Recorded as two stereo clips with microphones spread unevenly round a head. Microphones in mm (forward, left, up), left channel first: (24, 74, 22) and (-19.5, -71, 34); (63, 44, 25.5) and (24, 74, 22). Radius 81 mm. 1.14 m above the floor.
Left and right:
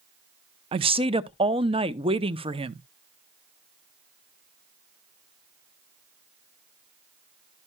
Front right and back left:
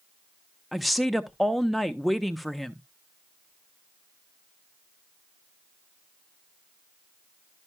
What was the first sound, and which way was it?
A woman speaking, 135° right.